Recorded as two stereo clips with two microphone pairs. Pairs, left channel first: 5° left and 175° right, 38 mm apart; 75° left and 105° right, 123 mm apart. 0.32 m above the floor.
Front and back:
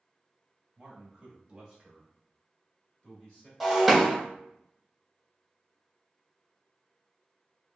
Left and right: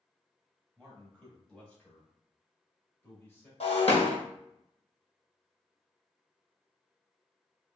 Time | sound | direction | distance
0.8 | a man speaking | 165° left | 1.5 m
3.6 | breaking glass | 100° left | 1.0 m